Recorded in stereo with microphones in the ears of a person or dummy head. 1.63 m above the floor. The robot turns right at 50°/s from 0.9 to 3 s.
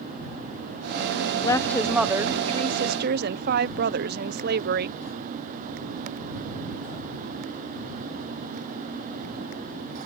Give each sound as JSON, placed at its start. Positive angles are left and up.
{"t": 1.4, "sound": "a woman speaking", "azimuth_deg": 160}